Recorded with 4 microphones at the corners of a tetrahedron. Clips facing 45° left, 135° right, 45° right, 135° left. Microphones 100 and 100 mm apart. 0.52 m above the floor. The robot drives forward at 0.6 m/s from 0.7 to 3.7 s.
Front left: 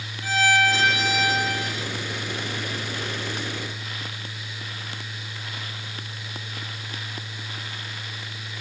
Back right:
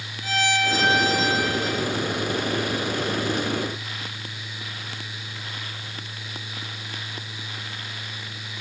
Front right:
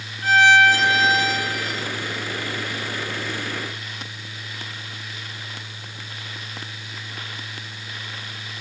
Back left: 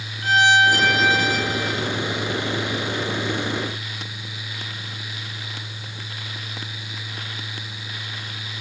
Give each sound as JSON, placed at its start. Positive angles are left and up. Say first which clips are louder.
{"t": 0.2, "sound": "a violin", "louder": "front left 3 dB, front right 2 dB", "azimuth_deg": 25, "distance_m": 2.0}